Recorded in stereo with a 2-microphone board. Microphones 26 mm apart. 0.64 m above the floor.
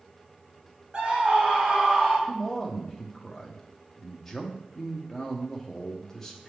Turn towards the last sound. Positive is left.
turn(degrees=15)  # may be behind; listen again after turning